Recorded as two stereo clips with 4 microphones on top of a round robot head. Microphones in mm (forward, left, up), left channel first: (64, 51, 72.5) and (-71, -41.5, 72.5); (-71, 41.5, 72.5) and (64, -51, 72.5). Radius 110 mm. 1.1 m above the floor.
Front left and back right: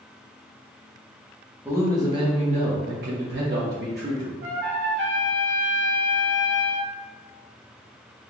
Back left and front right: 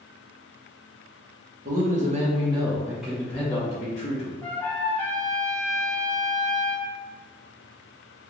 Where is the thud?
I don't hear a thud.